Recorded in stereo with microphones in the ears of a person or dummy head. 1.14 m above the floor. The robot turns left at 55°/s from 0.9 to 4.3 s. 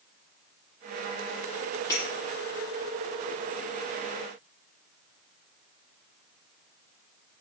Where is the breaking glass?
20° left (ahead or behind), 6.5 m; by 2.0 s 10° left (ahead or behind), 6.5 m.